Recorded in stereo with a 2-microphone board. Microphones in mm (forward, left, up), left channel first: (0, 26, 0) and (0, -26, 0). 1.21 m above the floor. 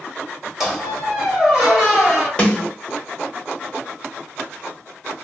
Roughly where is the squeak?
Centre.